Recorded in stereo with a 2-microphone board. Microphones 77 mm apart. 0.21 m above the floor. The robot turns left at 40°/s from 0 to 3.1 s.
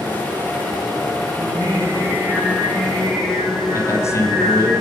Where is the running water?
65° right, 4 m; by 4.8 s 170° left, 4 m.